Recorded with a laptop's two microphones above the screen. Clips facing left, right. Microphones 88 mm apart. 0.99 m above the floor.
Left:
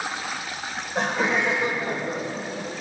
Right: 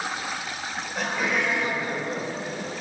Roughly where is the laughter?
Left.